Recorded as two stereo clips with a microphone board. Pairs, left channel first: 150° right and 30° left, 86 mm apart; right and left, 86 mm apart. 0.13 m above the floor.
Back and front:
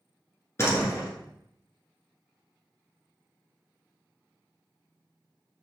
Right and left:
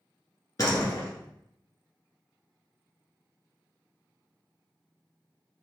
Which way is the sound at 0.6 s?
110° right.